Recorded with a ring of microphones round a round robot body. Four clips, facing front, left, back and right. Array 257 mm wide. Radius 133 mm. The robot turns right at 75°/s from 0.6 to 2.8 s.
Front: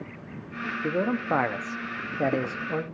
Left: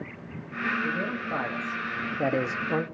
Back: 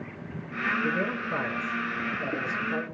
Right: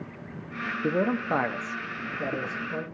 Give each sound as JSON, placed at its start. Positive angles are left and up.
{"t": 0.8, "sound": "a man speaking", "azimuth_deg": -70, "distance_m": 0.9}